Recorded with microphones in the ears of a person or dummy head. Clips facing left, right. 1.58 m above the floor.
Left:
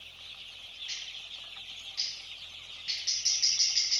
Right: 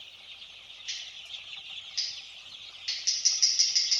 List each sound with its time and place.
0.9 s scissors: 45° right (ahead or behind), 1.7 m